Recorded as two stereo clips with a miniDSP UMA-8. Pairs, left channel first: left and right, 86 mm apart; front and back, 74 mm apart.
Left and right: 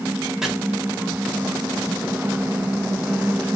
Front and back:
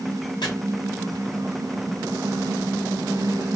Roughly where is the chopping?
Ahead.